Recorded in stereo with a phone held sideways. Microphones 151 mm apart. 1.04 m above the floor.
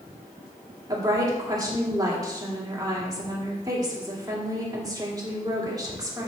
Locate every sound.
0.9 s a woman speaking: 25° right (ahead or behind), 2.5 m